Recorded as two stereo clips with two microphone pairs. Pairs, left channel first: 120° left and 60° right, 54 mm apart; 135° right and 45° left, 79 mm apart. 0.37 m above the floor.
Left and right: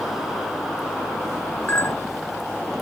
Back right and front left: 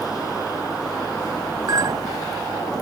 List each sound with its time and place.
1.7 s a clink: 70° left